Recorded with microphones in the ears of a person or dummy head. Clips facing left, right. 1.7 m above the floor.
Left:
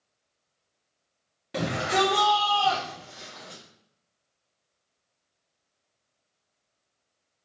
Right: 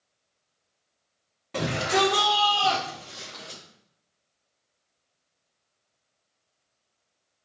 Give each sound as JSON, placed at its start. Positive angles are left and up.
{"t": 1.5, "sound": "a shout", "side_deg": 10, "distance_m": 0.9}